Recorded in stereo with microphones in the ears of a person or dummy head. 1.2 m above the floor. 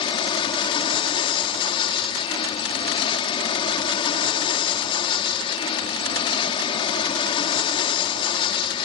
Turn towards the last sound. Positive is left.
turn(degrees=25)  # may be behind; listen again after turning